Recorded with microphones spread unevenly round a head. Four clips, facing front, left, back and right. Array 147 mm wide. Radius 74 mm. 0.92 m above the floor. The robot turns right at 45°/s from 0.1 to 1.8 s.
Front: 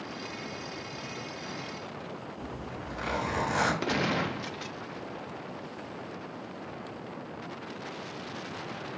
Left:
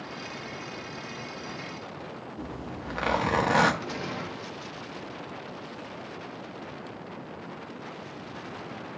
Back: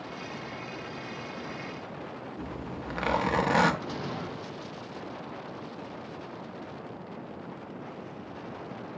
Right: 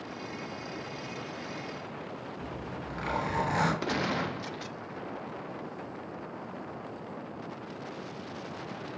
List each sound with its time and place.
2.4 s a zipper: 125° left, 1.4 m
3.8 s a gunshot: 25° right, 0.6 m